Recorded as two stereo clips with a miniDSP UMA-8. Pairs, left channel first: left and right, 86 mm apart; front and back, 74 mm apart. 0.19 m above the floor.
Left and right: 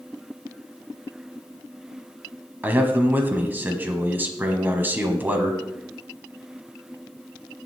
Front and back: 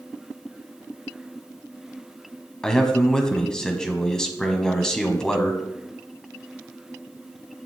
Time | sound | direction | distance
2.6 | a man speaking | 65° right | 1.5 m